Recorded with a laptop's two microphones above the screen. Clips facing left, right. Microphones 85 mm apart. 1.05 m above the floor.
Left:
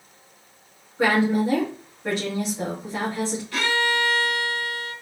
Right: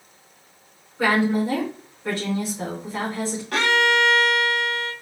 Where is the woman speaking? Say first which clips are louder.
Even; 25° left (ahead or behind), 2 m.